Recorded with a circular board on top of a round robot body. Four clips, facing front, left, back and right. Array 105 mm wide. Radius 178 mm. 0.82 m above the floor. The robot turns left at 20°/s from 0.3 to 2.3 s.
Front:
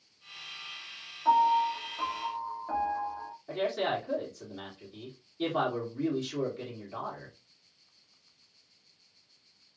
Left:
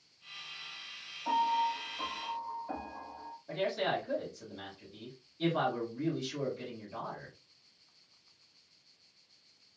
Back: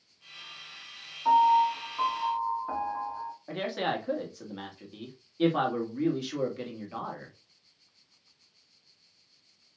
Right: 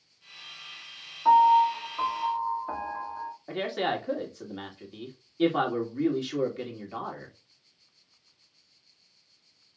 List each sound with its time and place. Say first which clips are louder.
1.2 s a piano: right 12 dB, back 3 dB; 100° right, 1.6 m; by 3.3 s 120° right, 1.6 m
3.5 s a man speaking: right 3 dB, front 1 dB; 125° right, 1.8 m